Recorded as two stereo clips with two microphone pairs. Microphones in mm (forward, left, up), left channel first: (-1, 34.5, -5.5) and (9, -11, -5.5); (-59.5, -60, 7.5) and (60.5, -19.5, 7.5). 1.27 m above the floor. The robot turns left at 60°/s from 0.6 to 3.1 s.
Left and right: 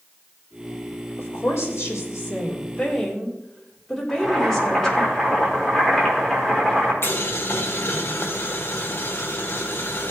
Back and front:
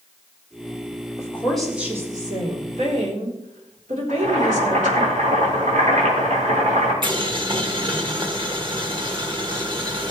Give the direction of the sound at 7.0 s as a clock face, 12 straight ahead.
10 o'clock.